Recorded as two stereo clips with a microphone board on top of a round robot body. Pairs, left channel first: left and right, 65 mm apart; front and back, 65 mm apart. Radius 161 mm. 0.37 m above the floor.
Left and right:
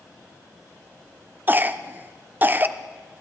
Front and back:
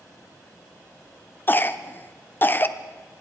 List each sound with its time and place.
1.5 s a cough: 45° right, 1.0 m